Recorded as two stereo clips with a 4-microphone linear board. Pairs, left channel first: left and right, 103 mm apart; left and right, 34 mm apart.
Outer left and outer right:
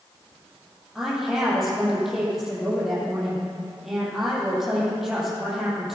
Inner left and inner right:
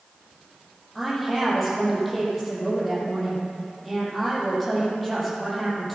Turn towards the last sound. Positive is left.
turn(degrees=0)  # may be behind; listen again after turning